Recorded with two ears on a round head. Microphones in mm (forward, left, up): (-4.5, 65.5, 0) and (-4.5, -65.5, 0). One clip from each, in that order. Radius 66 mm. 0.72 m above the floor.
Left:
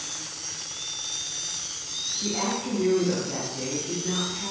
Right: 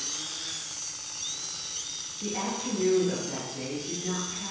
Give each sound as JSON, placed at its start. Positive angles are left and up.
{"t": 2.2, "sound": "a woman speaking", "side_deg": -35, "distance_m": 0.6}